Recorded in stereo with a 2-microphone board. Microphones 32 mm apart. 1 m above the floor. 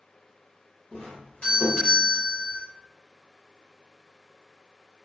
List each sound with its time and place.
0.9 s a doorbell: 35° left (ahead or behind), 1.7 m